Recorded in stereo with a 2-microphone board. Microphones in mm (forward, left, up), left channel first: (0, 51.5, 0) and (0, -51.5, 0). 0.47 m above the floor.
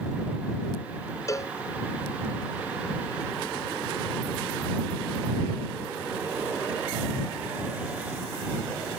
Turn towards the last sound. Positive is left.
turn(degrees=30)  # may be behind; listen again after turning